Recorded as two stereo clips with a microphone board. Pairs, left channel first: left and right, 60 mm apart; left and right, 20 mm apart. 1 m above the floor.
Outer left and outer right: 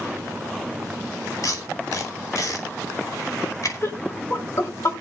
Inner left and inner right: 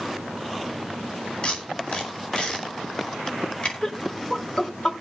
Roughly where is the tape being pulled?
Left.